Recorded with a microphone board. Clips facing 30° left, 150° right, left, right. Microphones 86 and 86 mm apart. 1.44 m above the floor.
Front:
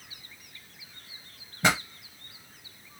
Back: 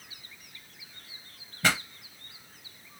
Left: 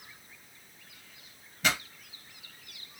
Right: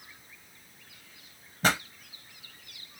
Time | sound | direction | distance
1.6 | a pop | 40° right | 0.9 m